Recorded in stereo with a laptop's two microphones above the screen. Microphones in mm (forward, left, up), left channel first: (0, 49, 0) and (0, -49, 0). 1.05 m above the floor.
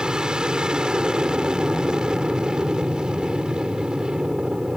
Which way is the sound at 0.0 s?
10° right (ahead or behind).